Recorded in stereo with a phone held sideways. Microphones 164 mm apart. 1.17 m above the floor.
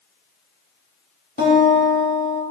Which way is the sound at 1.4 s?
75° left (ahead or behind).